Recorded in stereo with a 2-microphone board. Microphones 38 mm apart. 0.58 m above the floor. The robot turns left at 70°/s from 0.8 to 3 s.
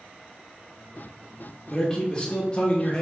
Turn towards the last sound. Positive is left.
turn(degrees=25)  # may be behind; listen again after turning